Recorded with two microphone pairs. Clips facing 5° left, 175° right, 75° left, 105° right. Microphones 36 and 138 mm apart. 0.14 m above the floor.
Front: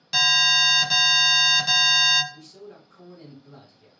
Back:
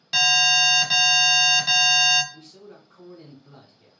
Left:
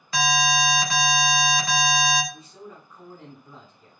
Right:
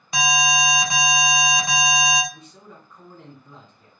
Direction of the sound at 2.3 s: 155° left.